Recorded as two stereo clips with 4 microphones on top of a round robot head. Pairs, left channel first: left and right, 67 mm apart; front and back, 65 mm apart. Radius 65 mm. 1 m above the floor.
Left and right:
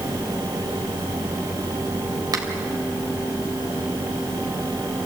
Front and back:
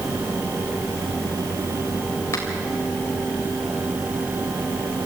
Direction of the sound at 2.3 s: 60° right.